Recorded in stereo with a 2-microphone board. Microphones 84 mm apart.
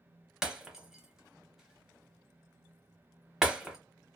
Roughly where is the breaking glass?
Centre.